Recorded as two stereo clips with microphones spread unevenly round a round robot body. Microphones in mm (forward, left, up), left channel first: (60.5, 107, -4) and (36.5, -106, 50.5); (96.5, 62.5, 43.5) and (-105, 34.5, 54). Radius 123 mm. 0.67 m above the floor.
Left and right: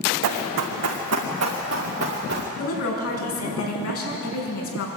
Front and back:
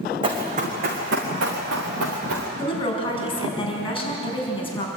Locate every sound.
0.2 s running footsteps: 100° right, 2.5 m; by 2.5 s 145° right, 4.5 m
2.6 s a woman speaking: 75° left, 5.5 m